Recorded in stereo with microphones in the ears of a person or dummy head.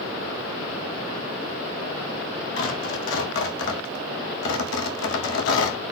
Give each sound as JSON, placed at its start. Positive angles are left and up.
{"t": 2.6, "sound": "tearing paper", "side_deg": 70, "distance_m": 1.8}